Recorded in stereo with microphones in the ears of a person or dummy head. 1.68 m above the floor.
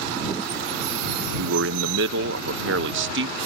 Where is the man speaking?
75° right (ahead or behind).